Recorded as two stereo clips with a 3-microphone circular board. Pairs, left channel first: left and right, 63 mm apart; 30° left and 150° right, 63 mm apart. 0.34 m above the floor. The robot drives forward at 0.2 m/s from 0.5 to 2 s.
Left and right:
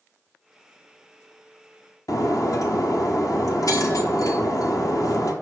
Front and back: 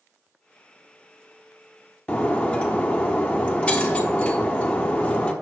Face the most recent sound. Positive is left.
turn(degrees=100)